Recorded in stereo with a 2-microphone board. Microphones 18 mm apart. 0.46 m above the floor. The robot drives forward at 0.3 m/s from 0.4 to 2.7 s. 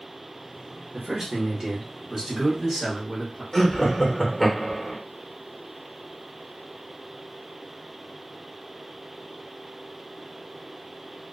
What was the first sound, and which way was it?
A man speaking, 30° right (ahead or behind).